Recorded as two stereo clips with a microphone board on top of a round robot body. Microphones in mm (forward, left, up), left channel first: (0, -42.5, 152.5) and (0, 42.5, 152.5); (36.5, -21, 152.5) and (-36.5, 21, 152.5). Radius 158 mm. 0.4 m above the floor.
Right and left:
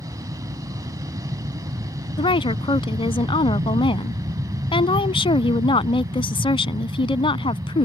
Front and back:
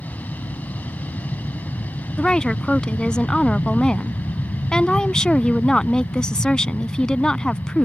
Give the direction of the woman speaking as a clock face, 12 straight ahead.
4 o'clock.